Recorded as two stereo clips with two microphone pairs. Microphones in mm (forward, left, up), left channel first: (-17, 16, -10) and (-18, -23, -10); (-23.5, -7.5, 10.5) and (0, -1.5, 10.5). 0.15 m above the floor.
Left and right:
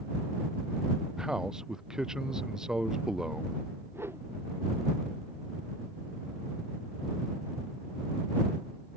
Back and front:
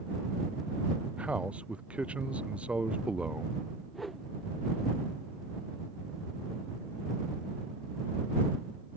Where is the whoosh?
80° right.